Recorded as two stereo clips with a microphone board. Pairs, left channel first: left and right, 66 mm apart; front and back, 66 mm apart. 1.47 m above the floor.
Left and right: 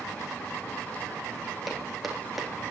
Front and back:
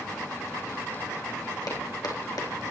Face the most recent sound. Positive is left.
turn(degrees=0)